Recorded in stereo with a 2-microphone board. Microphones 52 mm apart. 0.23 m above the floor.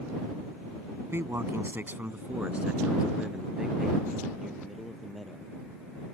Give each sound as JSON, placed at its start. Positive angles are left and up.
{"t": 1.1, "sound": "a man speaking", "side_deg": -55}